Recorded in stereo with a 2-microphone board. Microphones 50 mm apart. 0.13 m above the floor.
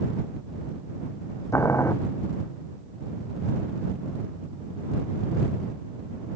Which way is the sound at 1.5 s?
75° left (ahead or behind).